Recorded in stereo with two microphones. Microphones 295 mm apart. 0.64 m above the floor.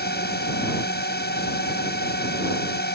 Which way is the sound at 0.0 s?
35° left (ahead or behind).